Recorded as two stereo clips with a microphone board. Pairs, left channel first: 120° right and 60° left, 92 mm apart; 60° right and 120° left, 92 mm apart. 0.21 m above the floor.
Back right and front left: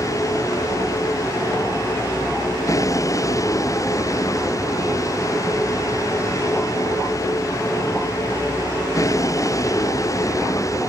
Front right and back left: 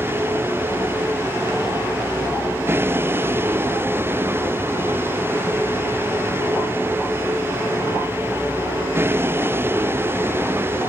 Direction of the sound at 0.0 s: 175° right.